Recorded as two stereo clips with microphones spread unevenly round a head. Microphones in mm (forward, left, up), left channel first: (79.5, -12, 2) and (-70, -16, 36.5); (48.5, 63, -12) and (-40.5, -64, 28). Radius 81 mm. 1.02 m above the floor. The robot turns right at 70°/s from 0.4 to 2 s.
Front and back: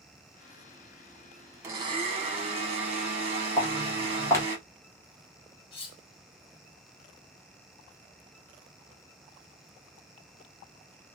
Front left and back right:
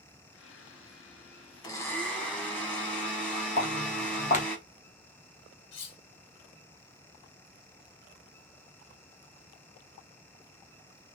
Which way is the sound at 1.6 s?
100° left.